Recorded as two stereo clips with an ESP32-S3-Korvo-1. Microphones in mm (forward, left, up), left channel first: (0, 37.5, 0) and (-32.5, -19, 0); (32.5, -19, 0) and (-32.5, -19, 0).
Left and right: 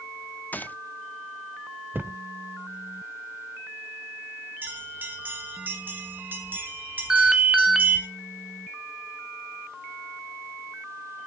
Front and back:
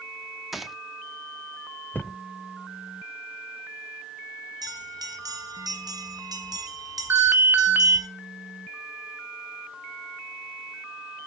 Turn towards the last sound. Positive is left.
turn(degrees=165)